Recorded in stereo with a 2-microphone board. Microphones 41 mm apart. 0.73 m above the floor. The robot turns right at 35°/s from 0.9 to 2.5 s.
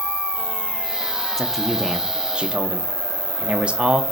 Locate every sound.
0.0 s an insect: 120° right, 1.0 m; by 4.1 s 60° right, 1.0 m
1.4 s a man speaking: 170° left, 1.0 m; by 4.0 s 150° right, 1.0 m